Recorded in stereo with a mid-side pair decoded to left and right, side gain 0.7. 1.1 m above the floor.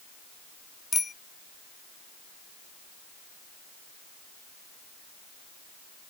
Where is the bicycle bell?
20° left.